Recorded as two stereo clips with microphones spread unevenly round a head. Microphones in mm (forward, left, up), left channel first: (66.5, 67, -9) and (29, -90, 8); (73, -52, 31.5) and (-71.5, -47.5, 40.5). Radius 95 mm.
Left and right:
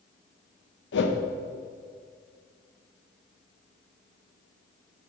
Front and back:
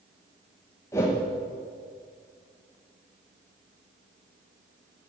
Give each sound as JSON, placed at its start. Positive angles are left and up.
{"t": 0.9, "sound": "a whoosh", "azimuth_deg": 75, "distance_m": 1.1}